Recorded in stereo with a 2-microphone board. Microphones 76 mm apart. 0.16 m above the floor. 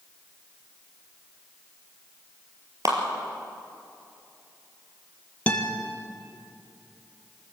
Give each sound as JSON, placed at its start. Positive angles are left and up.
{"t": 2.9, "sound": "a clap", "side_deg": -45, "distance_m": 4.0}
{"t": 5.5, "sound": "a guitar", "side_deg": 20, "distance_m": 2.5}